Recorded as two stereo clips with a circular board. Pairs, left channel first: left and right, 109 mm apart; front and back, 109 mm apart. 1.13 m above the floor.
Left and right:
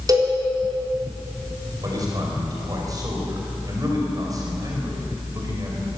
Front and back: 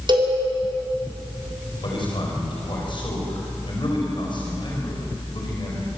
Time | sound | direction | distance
0.1 | a cowbell | 140° right | 3.5 m
1.8 | a man speaking | 35° right | 5 m